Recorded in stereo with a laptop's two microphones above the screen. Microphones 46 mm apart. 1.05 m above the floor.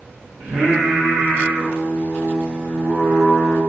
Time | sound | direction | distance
0.4 | singing | 20° right (ahead or behind) | 0.6 m